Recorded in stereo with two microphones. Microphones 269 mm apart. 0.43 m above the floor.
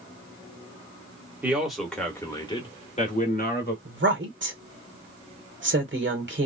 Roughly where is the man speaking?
Centre.